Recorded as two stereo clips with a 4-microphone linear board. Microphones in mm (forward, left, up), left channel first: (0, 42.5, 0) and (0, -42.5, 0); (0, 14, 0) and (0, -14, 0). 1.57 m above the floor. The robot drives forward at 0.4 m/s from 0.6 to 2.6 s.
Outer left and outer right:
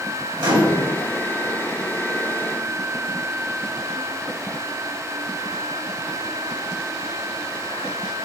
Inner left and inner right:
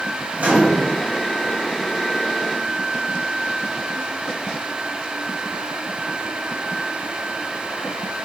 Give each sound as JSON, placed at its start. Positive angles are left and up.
{"t": 0.4, "sound": "a microwave", "side_deg": -55, "distance_m": 1.4}